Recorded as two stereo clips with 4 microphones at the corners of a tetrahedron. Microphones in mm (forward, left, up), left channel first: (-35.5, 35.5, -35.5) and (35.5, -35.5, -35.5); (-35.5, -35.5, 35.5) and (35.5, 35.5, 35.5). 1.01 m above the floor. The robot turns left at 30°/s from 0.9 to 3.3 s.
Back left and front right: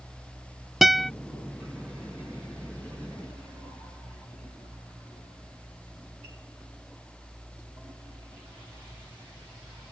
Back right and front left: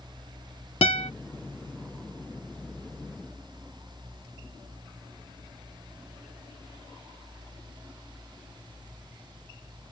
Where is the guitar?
135° right; by 1.1 s 140° right.